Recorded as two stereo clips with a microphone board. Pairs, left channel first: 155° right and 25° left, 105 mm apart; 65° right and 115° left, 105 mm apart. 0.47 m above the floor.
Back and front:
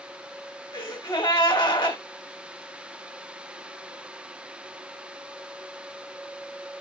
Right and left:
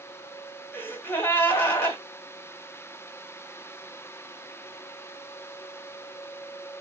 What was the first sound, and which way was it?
A gasp, 130° right.